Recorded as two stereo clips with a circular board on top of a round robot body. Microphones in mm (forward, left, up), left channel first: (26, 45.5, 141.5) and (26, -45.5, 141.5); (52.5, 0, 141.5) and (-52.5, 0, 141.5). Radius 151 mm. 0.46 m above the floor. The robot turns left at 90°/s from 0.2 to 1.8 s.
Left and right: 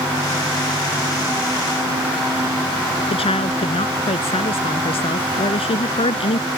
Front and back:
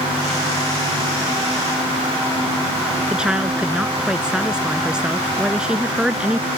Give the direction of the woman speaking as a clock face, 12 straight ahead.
9 o'clock.